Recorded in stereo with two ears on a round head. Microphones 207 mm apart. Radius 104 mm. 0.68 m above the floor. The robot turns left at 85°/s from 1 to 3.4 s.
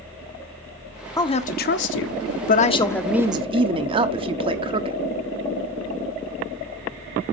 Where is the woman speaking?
160° left, 1.1 m; by 5.0 s 30° right, 1.1 m.